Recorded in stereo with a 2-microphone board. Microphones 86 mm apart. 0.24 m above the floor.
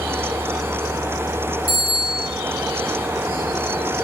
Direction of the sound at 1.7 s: 40° left (ahead or behind).